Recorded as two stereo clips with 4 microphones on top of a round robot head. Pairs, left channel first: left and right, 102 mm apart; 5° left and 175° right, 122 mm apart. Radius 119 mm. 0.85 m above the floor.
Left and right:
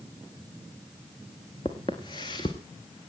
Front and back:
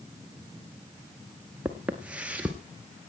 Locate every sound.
1.6 s footsteps: 110° left, 0.8 m